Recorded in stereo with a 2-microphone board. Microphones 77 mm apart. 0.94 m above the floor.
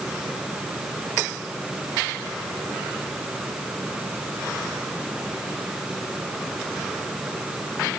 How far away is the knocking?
I don't hear knocking.